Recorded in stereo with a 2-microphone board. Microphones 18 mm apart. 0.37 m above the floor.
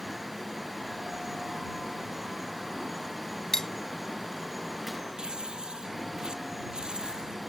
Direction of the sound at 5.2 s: 40° right (ahead or behind).